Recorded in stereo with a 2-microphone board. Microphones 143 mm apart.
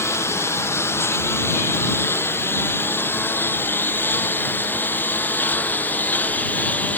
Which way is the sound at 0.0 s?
20° left (ahead or behind).